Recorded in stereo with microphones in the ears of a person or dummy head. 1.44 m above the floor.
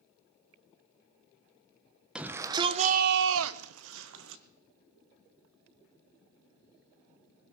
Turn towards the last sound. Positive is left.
turn(degrees=-65)  # may be behind; listen again after turning